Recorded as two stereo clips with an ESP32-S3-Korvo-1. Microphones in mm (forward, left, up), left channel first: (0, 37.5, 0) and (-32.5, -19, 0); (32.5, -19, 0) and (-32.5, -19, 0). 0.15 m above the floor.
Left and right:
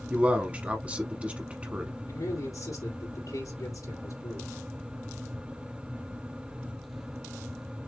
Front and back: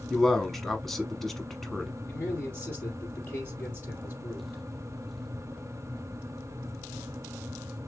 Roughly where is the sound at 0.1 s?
Right.